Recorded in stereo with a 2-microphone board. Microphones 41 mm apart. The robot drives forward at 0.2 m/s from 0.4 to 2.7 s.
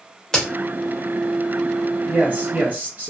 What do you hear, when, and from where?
0.3 s a crack: 15° left (ahead or behind), 0.9 m
2.1 s a man speaking: 35° right (ahead or behind), 1.1 m